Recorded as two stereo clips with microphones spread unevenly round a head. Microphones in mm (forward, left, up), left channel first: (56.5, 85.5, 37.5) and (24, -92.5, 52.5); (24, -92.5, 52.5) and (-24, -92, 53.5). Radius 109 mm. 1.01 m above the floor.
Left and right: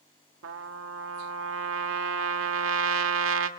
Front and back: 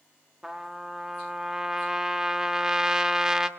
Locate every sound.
0.4 s a trumpet: 105° right, 1.9 m